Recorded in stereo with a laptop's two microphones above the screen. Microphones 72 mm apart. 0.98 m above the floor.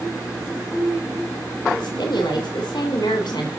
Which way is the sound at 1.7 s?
70° left (ahead or behind).